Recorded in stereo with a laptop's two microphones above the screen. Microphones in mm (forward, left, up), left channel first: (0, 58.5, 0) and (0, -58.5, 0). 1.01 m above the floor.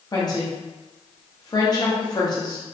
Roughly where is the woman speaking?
Left.